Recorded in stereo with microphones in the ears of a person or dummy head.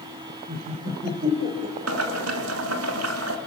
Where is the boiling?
80° right, 3 m.